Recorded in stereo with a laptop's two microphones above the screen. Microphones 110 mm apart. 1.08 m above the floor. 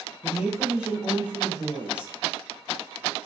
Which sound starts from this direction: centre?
A woman speaking, at 0.2 s.